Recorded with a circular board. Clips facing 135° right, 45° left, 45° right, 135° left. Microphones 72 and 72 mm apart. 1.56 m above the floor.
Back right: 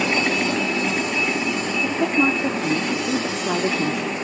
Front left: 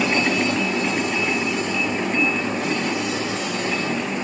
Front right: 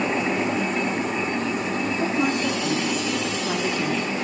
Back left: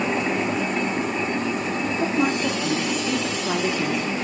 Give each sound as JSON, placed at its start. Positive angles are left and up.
{"t": 1.8, "sound": "a woman speaking", "azimuth_deg": -145, "distance_m": 3.5}